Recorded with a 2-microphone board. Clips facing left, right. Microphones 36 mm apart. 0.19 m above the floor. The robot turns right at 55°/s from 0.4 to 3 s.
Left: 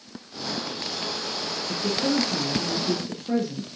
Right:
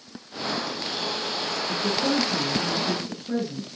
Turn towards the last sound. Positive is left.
turn(degrees=85)